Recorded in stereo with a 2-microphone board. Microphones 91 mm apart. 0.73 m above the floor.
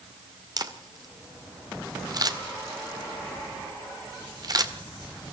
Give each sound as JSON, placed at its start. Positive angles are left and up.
{"t": 0.6, "sound": "a camera shutter", "side_deg": -45, "distance_m": 2.0}